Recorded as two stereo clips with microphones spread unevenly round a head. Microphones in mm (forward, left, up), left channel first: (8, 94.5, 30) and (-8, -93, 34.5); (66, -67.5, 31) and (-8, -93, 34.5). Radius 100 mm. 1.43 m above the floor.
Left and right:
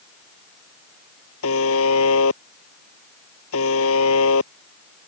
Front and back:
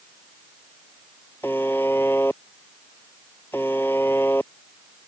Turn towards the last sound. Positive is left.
turn(degrees=100)